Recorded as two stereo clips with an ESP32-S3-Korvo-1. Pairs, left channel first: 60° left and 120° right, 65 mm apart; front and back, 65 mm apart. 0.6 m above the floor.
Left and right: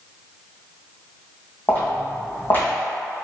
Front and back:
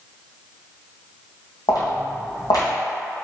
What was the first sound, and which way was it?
Footsteps, straight ahead.